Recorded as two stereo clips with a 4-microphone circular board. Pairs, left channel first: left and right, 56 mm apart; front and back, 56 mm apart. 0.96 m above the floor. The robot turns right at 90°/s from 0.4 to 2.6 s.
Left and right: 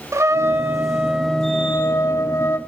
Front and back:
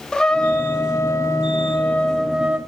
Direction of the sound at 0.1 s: 75° right.